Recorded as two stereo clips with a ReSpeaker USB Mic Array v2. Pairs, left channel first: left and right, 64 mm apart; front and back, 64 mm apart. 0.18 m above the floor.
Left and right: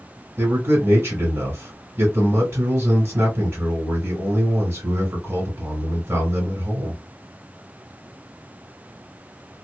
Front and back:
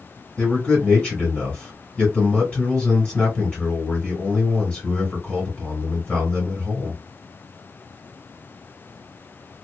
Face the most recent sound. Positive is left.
turn(degrees=-65)